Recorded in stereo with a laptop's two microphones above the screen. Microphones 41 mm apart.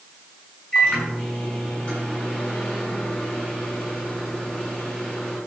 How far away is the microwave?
About 6.5 m.